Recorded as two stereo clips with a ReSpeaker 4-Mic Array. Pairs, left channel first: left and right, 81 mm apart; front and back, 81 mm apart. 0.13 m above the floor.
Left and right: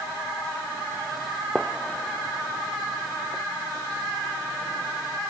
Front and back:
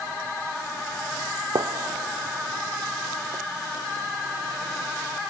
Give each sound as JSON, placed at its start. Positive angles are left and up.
{"t": 1.6, "sound": "a gunshot", "azimuth_deg": 175}